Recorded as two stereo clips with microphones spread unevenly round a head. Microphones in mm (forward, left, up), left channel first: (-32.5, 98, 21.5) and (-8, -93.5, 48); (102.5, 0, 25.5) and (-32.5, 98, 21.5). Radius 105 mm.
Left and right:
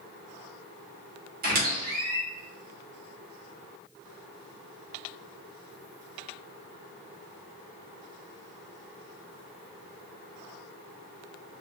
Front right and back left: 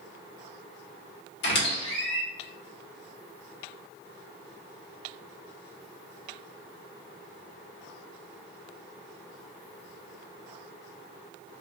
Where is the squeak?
40° right, 1.6 m.